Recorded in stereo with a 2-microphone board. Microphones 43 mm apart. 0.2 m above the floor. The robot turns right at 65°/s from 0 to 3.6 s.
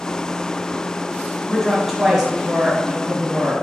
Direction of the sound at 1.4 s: 10° left (ahead or behind).